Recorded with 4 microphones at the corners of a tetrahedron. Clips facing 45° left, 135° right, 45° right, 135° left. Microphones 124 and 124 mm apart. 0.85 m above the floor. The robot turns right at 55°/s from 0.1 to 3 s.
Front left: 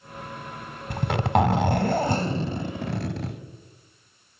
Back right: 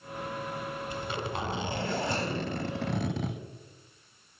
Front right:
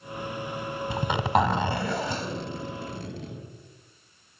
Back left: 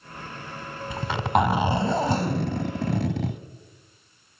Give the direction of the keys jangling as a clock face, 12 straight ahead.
No keys jangling in this recording.